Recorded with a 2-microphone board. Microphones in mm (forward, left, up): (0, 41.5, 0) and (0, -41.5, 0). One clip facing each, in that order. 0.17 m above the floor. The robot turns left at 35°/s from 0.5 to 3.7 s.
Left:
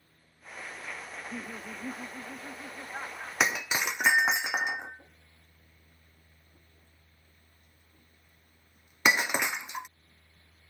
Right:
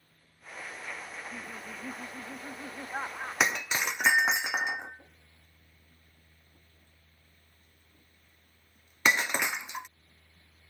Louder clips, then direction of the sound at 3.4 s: Left 1 dB; centre (ahead or behind).